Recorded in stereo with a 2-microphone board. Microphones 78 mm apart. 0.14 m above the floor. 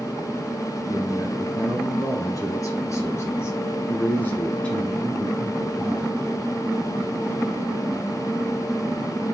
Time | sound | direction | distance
0.9 | a man speaking | 50° left (ahead or behind) | 2.5 m